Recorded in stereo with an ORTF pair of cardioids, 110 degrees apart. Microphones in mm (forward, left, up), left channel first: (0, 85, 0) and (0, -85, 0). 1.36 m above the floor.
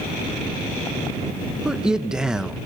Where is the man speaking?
5° right, 1.0 m.